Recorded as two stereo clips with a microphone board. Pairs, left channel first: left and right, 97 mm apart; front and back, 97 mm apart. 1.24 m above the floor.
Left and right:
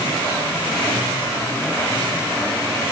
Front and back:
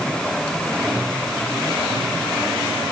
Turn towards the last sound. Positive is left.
No sound to turn to.